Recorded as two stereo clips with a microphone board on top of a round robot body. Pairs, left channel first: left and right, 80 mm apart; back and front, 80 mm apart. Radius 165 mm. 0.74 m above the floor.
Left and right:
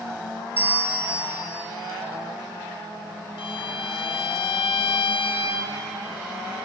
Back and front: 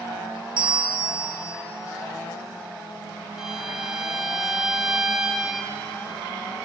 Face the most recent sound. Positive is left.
turn(degrees=85)